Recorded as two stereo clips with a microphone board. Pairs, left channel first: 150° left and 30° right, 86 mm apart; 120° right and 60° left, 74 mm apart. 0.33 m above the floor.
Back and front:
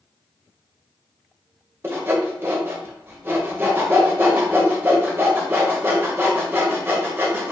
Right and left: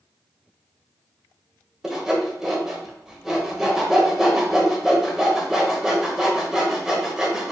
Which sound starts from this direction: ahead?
Sawing, at 1.8 s.